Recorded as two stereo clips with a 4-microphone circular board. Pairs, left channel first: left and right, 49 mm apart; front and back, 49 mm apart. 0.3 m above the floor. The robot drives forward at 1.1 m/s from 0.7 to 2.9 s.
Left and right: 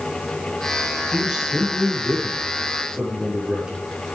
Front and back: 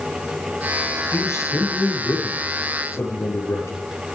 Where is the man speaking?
10° right, 8.5 m; by 3.8 s 15° right, 7 m.